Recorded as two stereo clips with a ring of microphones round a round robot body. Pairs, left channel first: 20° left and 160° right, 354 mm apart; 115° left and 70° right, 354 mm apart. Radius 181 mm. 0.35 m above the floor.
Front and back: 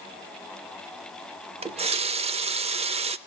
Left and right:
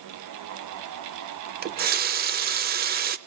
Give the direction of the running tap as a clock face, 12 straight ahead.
3 o'clock.